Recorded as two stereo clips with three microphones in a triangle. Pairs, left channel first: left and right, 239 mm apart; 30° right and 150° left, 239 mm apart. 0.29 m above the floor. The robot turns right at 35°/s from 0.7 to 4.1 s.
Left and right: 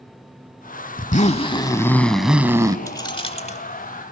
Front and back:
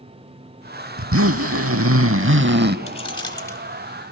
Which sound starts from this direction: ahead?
Keys jangling, at 2.9 s.